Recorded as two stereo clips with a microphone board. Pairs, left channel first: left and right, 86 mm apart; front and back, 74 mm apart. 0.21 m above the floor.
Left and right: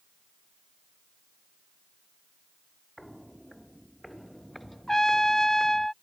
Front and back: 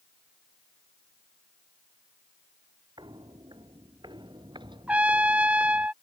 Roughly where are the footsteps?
Behind.